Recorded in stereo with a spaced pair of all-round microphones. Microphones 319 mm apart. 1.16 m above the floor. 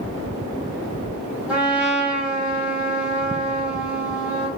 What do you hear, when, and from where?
1.5 s a trumpet: 5° right (ahead or behind), 1.2 m